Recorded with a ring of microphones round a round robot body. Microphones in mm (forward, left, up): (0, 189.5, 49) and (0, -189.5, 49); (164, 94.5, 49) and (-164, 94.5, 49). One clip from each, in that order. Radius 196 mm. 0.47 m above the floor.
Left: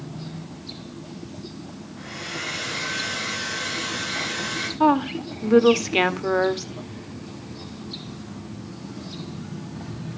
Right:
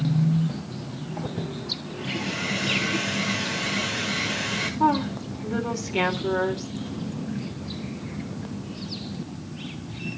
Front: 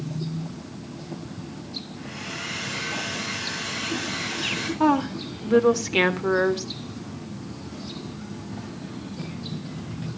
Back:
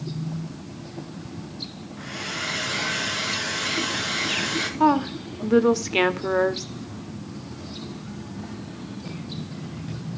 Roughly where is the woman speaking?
Left.